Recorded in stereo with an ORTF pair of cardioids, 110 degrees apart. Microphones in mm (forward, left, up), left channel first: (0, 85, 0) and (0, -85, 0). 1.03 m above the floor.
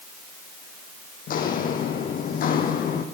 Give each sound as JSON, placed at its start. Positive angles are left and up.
{"t": 1.3, "sound": "footsteps", "azimuth_deg": 60, "distance_m": 3.0}